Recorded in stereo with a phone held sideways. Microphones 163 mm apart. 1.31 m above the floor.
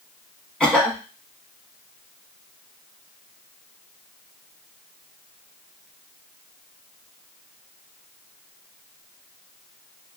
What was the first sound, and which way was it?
A cough, 5° left (ahead or behind).